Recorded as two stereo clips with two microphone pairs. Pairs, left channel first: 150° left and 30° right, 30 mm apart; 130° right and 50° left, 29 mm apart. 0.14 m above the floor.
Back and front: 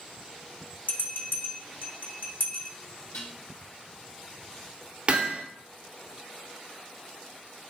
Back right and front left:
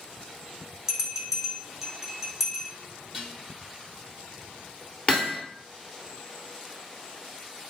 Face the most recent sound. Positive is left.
turn(degrees=-85)